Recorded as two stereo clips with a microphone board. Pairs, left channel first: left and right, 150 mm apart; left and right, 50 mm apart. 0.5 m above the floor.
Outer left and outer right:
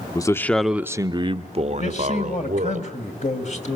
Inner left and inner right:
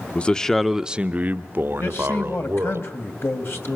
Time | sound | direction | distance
0.1 | a man speaking | 25° left (ahead or behind) | 0.9 m
1.8 | a man speaking | 50° left (ahead or behind) | 3 m